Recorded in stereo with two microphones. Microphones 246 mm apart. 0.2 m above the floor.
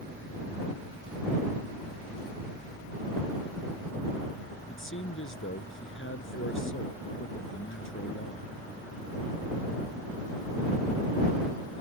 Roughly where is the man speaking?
Left.